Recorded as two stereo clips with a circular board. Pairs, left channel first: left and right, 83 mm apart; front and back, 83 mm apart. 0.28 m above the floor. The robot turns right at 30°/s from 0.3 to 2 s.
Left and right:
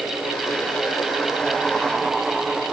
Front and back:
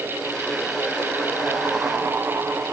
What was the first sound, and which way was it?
Only background noise.